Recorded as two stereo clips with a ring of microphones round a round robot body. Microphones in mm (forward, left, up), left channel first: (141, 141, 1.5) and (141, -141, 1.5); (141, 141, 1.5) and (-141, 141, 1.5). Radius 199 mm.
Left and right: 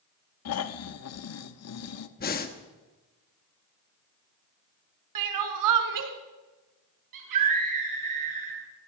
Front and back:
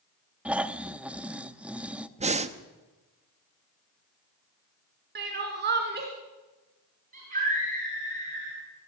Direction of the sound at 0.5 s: 95° left.